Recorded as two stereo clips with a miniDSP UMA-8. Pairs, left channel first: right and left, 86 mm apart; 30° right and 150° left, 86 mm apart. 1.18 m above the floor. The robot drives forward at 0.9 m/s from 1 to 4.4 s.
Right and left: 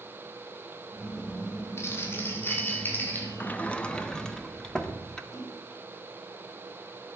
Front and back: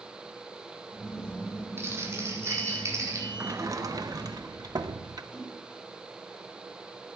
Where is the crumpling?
150° right, 3 m; by 3.3 s 160° right, 4.5 m.